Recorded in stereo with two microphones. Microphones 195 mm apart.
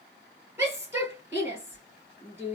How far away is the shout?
About 3 m.